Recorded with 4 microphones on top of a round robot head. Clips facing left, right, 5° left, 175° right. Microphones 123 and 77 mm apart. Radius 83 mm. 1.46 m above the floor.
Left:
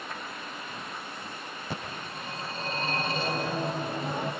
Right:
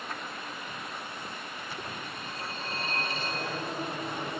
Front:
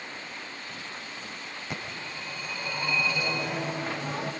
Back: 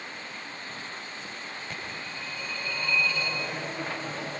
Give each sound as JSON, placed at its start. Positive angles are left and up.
{"t": 1.7, "sound": "a phone ringing", "azimuth_deg": 80, "distance_m": 6.5}